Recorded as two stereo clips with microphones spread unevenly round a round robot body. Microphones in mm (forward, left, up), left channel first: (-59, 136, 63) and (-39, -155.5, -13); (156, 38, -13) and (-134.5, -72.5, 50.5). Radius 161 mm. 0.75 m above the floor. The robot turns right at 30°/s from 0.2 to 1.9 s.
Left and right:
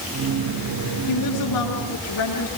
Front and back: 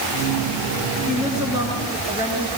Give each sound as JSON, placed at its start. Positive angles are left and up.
{"t": 1.1, "sound": "a woman speaking", "azimuth_deg": 105, "distance_m": 9.5}